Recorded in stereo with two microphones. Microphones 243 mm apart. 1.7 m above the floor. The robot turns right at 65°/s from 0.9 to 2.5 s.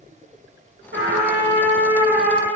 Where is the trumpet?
85° right, 2 m; by 2.5 s 15° left, 2 m.